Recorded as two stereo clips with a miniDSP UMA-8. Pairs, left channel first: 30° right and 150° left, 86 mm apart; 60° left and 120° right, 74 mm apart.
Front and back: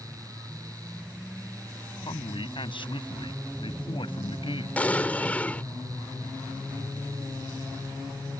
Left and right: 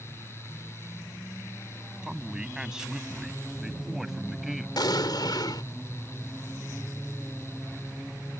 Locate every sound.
2.0 s a man speaking: 40° right; by 4.7 s 35° right
4.8 s an explosion: 40° left